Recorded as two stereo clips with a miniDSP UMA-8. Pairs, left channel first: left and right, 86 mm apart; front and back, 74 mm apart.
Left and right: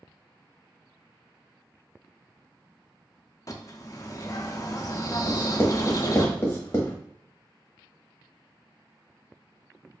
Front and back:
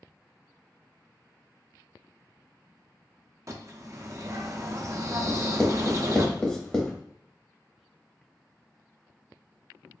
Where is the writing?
75° left, 1.1 m.